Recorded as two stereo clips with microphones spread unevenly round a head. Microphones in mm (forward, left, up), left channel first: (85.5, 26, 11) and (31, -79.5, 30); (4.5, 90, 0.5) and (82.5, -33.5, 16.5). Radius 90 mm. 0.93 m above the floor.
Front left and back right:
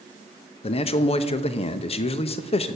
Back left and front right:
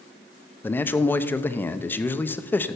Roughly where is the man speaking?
Ahead left.